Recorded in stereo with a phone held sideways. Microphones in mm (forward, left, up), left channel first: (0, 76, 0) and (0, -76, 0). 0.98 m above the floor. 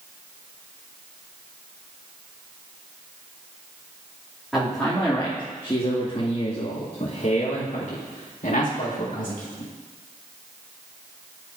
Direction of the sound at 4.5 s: Centre (ahead or behind).